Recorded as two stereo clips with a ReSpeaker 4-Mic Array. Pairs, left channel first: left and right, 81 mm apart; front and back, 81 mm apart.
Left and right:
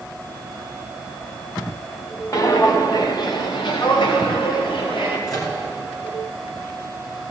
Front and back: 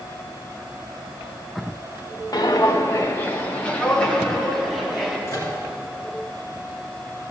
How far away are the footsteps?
About 1.3 m.